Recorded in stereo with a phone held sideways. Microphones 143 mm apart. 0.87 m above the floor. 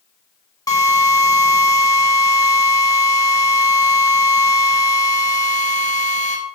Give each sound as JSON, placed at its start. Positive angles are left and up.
{"t": 0.7, "sound": "a drill", "side_deg": 25, "distance_m": 3.0}